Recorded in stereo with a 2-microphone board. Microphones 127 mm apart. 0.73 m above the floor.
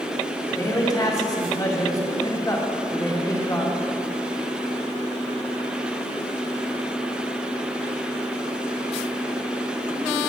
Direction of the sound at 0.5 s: 30° left (ahead or behind).